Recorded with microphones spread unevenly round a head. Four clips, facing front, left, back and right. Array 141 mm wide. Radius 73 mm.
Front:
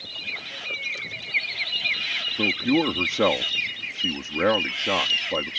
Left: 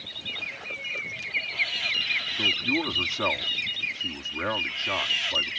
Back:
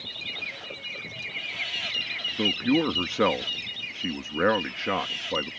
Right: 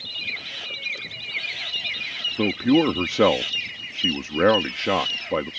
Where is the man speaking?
95° right.